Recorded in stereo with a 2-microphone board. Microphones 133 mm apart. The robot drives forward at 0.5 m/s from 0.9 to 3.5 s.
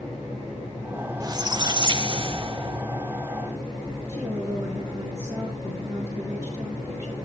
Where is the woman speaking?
20° right (ahead or behind), 6 m.